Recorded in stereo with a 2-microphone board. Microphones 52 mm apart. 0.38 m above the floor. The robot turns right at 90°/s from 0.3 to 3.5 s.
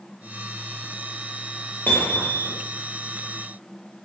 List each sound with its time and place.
1.9 s hammering: 40° left, 8 m; by 2.6 s 100° left, 8 m